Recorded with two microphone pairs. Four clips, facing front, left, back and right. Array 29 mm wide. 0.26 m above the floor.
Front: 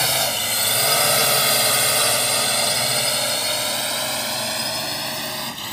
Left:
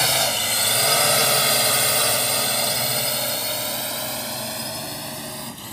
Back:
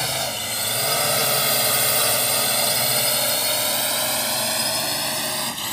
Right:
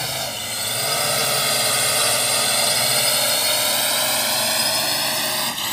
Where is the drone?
50° left; by 5.7 s 95° right.